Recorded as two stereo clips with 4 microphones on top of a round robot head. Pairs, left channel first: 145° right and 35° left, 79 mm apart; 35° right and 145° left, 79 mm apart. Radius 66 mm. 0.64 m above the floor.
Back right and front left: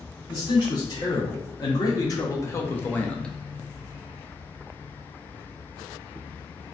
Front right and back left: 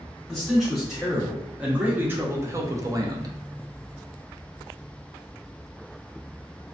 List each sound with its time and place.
0.3 s a man speaking: 125° right, 1.4 m; by 3.4 s 135° left, 0.8 m